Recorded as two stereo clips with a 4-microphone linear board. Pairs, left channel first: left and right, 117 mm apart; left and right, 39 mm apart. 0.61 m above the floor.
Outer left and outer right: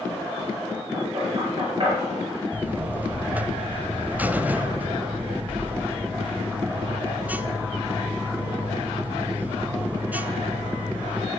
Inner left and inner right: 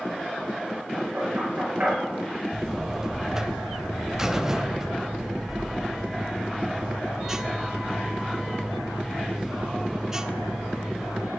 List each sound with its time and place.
0.9 s knocking: 40° right (ahead or behind), 6.5 m
2.5 s a buzzer: 15° right (ahead or behind), 0.6 m